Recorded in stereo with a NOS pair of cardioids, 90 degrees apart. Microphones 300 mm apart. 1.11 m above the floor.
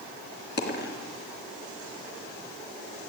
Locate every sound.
0.6 s a dropped coin: 35° left, 2.5 m